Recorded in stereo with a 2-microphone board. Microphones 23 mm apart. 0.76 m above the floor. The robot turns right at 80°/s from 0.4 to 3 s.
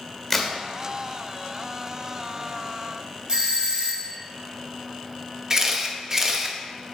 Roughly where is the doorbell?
Right.